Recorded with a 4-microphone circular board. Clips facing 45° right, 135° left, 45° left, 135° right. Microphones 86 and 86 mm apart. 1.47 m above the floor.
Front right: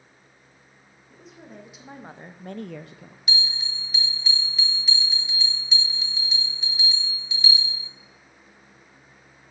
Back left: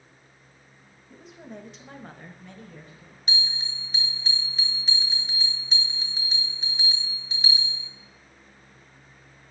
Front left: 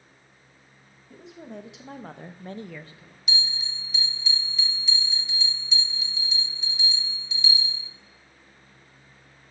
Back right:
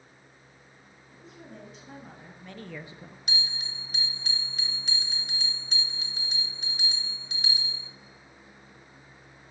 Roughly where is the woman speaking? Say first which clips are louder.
Back left 2 dB, front left 7 dB; ahead left.